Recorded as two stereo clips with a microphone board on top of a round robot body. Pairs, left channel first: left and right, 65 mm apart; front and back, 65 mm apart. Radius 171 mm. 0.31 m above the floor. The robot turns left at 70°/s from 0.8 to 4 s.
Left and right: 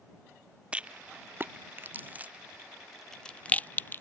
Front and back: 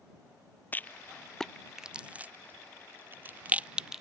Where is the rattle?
35° right; by 4.0 s 105° left.